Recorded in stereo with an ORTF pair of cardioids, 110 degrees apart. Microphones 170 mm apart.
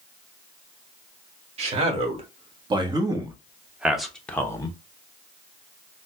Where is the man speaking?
40° right, 1.9 m; by 4.8 s 25° left, 0.9 m.